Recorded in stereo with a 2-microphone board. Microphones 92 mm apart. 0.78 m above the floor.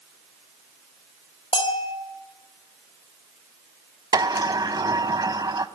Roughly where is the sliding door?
Right.